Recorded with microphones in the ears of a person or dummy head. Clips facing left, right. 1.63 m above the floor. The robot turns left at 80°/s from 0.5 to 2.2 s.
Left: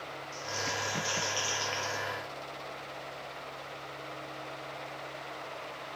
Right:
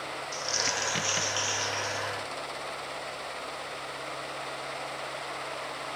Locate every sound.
0.3 s crumpling: 100° right, 0.6 m; by 2.0 s 135° left, 0.6 m